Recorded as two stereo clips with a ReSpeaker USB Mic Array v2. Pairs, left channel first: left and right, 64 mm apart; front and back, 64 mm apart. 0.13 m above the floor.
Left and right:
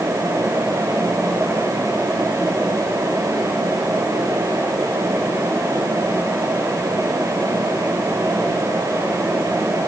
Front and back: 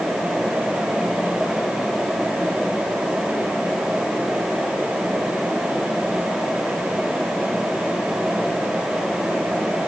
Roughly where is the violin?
No violin in this recording.